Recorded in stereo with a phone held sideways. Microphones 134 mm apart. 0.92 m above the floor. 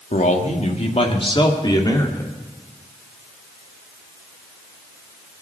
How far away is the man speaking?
About 1.9 m.